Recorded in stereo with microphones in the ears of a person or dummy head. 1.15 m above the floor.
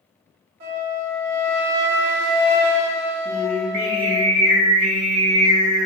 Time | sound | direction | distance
0.6 | a flute | 70° right (ahead or behind) | 1.7 m
3.2 | singing | 60° right (ahead or behind) | 1.3 m